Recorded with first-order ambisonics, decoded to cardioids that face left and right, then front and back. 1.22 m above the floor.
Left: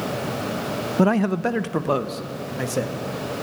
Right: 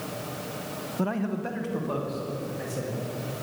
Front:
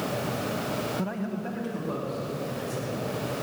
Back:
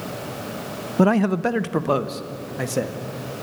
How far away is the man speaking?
About 0.7 m.